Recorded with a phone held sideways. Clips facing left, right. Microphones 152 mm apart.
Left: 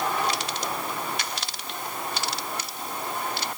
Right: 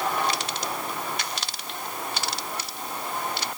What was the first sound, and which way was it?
Only background noise.